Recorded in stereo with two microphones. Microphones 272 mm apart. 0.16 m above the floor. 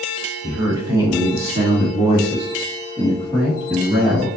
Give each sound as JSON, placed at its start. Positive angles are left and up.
{"t": 0.4, "sound": "a man speaking", "side_deg": -10, "distance_m": 1.4}